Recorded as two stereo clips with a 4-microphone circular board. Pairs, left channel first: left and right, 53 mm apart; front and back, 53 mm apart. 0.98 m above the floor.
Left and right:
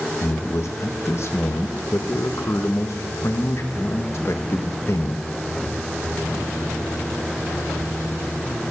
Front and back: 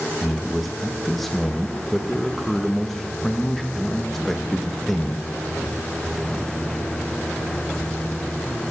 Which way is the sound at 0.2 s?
85° left.